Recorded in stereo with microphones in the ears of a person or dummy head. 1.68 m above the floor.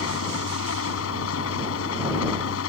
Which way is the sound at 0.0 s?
85° left.